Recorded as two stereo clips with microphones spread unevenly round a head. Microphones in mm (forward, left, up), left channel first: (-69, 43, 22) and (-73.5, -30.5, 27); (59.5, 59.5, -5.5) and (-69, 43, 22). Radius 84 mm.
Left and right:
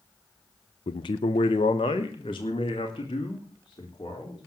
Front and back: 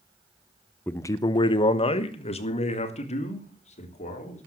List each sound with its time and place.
0.9 s a man speaking: 90° left, 0.7 m; by 4.4 s 35° left, 3.5 m